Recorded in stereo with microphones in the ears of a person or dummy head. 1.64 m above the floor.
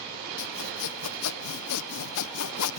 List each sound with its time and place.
0.4 s sawing: 85° left